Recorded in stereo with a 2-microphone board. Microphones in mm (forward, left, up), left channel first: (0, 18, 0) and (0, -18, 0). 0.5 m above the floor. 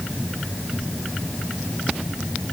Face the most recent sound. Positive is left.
No sound to turn to.